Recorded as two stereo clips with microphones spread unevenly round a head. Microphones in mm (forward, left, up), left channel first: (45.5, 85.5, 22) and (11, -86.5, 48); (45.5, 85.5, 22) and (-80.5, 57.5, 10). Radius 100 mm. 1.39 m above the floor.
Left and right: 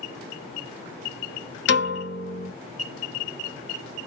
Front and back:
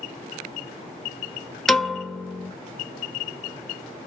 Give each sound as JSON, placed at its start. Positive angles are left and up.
{"t": 1.7, "sound": "a piano", "azimuth_deg": 100, "distance_m": 0.8}